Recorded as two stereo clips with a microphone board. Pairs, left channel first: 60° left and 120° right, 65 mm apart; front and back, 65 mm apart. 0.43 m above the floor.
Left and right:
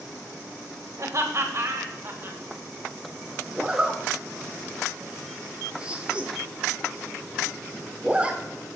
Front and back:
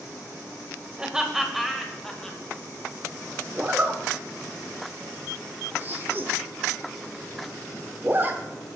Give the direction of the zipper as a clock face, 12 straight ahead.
6 o'clock.